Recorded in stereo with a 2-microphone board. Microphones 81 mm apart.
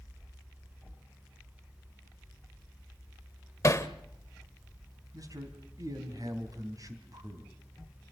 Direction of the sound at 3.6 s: 40° left (ahead or behind).